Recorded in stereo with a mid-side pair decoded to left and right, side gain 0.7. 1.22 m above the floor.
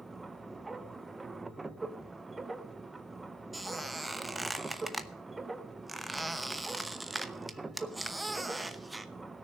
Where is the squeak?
10° right, 0.9 m.